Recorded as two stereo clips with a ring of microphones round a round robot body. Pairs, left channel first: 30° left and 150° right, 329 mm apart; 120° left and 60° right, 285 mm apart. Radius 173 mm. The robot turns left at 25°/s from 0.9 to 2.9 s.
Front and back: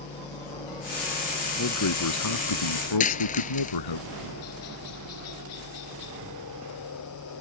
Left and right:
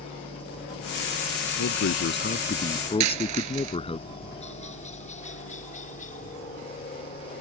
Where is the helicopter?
95° left; by 7.4 s 60° left.